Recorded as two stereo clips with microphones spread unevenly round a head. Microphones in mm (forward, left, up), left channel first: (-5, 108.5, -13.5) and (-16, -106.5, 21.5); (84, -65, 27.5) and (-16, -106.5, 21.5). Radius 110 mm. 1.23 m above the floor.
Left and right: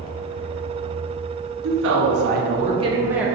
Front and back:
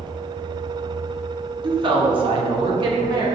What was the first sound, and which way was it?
A woman speaking, 125° right.